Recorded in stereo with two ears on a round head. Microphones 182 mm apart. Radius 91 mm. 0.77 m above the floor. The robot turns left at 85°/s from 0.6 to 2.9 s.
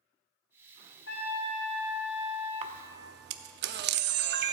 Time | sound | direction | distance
1.1 | a trumpet | 65° left | 3 m
2.6 | a camera shutter | 30° right (ahead or behind) | 0.7 m